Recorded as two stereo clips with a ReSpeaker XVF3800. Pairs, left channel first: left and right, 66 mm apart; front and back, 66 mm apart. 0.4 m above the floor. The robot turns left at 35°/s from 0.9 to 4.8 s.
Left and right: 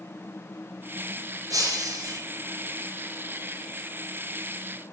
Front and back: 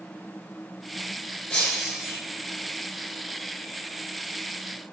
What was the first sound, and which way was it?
Breaking glass, 80° right.